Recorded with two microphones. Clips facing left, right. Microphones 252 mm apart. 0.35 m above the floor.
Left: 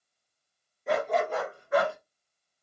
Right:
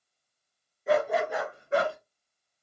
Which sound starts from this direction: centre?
A dog barking, at 0.9 s.